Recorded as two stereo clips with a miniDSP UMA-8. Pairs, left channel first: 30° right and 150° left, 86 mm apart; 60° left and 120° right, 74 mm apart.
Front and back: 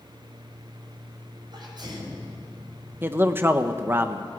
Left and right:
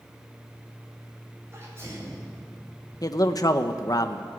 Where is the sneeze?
175° right, 8 m.